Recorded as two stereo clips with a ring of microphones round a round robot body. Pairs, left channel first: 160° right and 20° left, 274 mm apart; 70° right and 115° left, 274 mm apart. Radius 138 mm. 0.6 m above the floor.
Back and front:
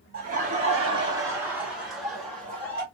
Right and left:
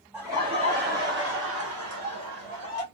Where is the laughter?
35° left, 0.9 m; by 2.8 s 120° left, 1.6 m.